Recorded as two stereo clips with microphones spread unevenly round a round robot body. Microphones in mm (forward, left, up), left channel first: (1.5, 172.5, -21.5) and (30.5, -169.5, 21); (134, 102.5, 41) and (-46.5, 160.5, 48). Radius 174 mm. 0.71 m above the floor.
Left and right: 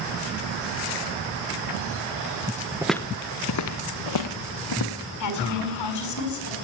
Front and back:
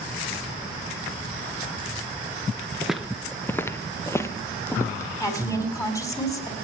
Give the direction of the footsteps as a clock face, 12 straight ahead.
4 o'clock.